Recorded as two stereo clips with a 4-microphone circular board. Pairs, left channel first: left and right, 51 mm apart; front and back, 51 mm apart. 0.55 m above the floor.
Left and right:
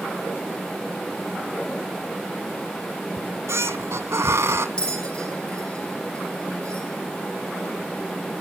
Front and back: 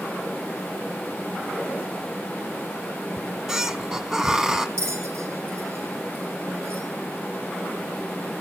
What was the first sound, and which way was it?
A squeak, 105° right.